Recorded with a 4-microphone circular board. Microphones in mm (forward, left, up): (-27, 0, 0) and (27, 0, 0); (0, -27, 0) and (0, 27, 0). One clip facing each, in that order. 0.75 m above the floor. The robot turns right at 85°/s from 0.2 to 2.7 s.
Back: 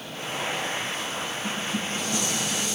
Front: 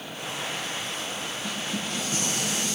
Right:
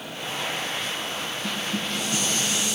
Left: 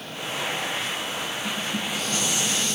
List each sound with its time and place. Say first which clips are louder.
1.4 s dishes clattering: back 1 dB, right 1 dB; 65° right, 9 m; by 2.8 s 45° left, 9 m